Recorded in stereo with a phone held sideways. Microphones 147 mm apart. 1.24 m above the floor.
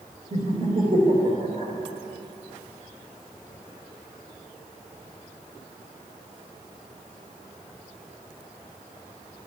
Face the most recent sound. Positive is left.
turn(degrees=-40)  # may be behind; listen again after turning